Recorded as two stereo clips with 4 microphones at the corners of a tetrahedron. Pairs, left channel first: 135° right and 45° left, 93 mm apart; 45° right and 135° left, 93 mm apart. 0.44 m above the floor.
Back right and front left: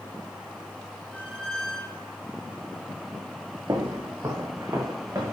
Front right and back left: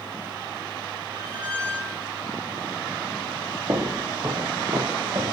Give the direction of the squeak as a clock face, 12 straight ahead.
7 o'clock.